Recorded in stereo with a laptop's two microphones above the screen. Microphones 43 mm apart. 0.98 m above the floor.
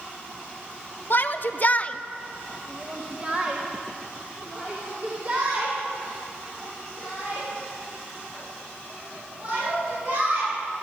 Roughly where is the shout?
Left.